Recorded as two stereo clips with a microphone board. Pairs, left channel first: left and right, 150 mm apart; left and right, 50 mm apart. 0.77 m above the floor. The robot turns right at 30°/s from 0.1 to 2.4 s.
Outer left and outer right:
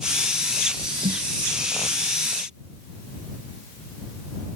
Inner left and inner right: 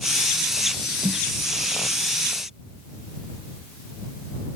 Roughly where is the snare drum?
Right.